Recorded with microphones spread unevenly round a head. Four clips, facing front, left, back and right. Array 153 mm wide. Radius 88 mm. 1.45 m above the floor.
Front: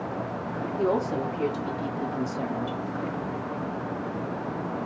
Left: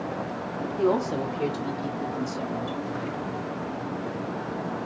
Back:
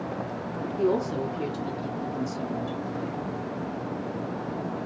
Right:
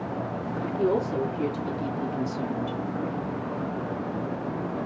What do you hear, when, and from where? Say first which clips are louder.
0.8 s a woman speaking: left 1 dB, even; 60° left, 2.5 m; by 2.8 s 20° right, 1.1 m